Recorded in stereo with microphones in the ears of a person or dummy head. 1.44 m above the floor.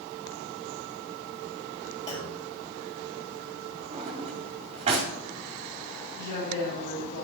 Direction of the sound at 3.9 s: 40° right (ahead or behind).